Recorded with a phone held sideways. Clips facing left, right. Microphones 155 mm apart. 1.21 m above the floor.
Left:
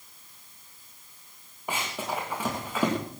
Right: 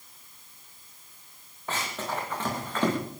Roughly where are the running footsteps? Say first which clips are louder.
Left 1 dB; centre.